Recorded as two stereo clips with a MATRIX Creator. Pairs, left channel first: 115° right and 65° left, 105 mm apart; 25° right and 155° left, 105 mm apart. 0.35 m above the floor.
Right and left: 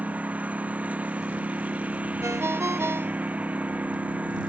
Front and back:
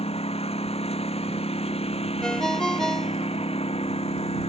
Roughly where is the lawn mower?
Ahead.